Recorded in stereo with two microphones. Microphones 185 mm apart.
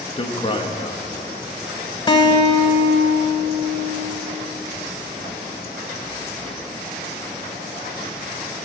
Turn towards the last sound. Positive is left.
turn(degrees=25)  # may be behind; listen again after turning